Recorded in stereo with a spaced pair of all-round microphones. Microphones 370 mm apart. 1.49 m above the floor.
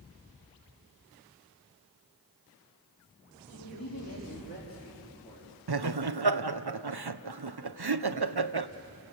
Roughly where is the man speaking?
Left.